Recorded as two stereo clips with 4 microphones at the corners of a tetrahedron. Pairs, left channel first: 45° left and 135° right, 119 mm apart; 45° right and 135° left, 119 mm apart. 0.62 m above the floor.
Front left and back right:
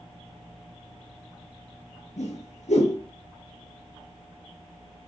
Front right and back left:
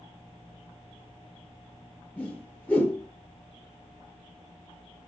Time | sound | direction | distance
2.2 | a whoosh | 30° left | 7 m